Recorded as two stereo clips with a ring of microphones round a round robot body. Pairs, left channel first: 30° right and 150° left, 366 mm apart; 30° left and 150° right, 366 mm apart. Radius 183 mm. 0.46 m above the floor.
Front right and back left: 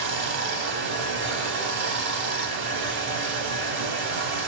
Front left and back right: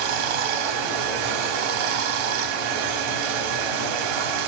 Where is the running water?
150° right, 0.7 m.